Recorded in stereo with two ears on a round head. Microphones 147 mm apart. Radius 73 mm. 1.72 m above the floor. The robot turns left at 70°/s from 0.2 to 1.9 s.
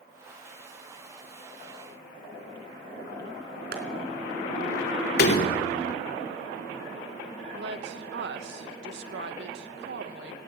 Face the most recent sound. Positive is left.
turn(degrees=-75)  # may be behind; listen again after turning